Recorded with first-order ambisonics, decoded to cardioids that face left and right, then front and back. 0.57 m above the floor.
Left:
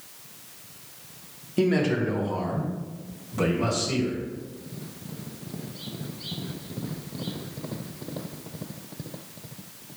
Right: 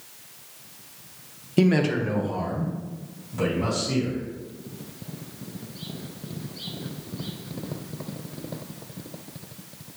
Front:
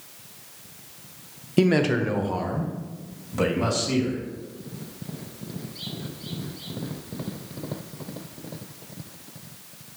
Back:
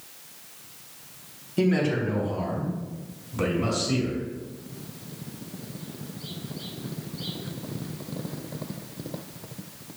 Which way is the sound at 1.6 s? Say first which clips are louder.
Right 1 dB, front 3 dB; 35° right.